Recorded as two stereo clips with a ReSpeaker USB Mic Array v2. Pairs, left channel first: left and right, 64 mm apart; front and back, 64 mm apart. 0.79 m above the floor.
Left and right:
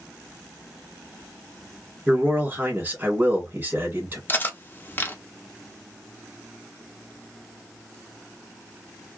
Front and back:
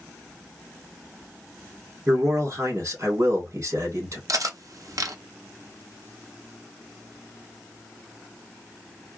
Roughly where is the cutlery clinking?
Behind left.